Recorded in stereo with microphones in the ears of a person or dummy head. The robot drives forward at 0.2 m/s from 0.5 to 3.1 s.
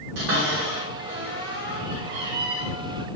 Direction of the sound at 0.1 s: 70° right (ahead or behind).